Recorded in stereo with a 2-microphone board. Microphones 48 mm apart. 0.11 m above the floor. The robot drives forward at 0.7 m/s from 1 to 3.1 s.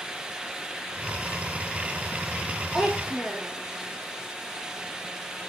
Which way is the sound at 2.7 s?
5° right (ahead or behind).